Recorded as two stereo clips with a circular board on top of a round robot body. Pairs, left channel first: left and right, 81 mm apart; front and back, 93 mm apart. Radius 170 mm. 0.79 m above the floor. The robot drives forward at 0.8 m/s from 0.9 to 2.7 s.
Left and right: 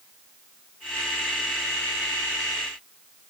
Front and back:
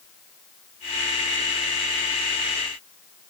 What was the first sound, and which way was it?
Only background noise.